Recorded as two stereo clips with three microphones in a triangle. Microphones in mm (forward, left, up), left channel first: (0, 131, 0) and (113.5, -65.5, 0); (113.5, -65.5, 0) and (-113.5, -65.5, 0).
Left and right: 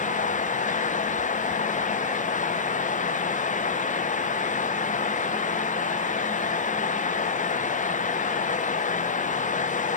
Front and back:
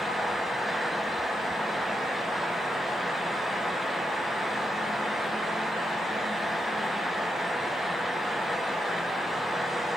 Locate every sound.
Only background noise.